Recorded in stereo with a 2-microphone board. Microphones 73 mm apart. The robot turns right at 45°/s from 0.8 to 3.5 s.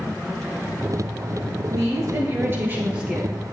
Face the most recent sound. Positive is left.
turn(degrees=5)